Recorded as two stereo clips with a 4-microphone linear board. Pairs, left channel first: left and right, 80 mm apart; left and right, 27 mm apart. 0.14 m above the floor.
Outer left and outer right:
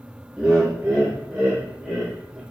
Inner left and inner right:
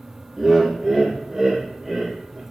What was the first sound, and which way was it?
Laughter, 15° right (ahead or behind).